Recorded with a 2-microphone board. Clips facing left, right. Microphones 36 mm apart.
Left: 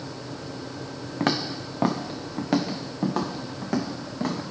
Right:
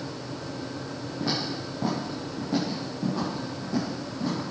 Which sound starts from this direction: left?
Footsteps, at 1.2 s.